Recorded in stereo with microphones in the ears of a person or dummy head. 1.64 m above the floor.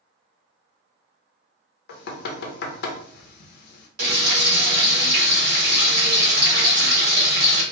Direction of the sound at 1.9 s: 65° left (ahead or behind).